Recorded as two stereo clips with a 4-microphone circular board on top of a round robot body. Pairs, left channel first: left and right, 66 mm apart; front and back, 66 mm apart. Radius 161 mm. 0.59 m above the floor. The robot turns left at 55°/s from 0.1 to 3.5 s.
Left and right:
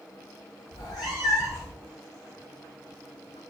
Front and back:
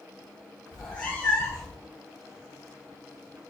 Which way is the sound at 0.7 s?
90° left.